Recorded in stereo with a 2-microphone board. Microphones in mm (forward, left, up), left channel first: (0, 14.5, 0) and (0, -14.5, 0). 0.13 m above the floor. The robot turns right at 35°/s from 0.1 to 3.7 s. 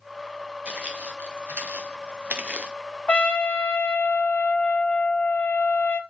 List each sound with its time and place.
0.7 s footsteps: 50° right (ahead or behind), 2.5 m; by 2.7 s 40° right (ahead or behind), 1.3 m
3.1 s a trumpet: 50° left (ahead or behind), 0.5 m; by 6.0 s 70° left (ahead or behind), 0.5 m